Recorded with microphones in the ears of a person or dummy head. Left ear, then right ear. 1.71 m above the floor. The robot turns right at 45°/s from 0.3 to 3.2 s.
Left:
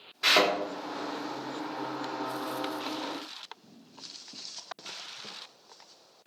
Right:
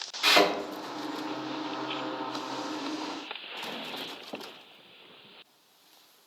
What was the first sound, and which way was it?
A thud, 10° right (ahead or behind).